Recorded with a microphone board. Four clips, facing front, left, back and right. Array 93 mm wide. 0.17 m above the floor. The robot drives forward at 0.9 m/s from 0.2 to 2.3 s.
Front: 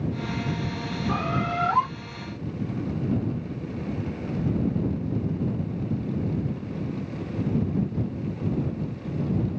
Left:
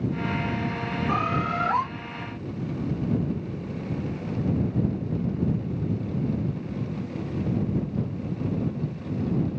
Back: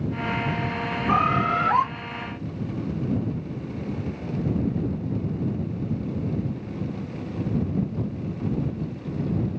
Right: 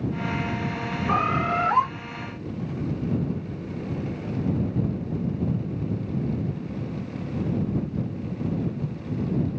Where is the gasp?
I don't hear a gasp.